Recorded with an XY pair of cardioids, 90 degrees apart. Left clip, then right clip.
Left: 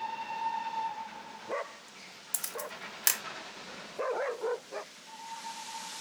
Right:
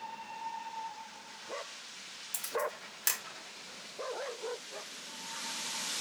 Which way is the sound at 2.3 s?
45° left.